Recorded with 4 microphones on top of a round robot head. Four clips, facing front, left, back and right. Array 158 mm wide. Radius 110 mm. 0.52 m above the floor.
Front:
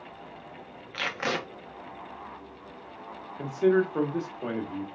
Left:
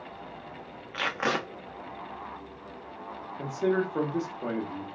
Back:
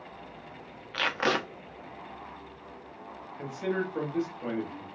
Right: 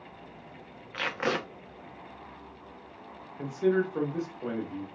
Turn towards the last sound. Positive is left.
turn(degrees=30)